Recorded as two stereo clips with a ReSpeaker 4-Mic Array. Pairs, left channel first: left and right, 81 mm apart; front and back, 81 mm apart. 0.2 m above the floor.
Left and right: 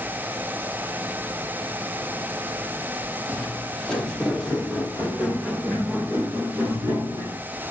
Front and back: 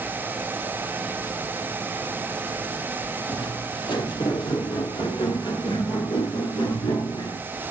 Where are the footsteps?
10° left, 4 m; by 7.4 s 30° right, 5 m.